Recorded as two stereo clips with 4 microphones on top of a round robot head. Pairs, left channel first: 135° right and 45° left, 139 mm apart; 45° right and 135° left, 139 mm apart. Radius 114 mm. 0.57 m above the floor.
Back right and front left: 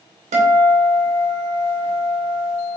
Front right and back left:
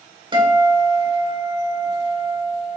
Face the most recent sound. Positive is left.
turn(degrees=80)